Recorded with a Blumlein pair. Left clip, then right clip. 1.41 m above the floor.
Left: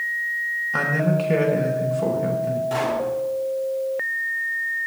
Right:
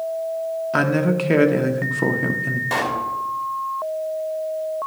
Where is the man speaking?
65° right, 1.0 m.